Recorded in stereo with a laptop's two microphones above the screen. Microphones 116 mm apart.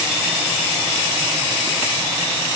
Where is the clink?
I don't hear a clink.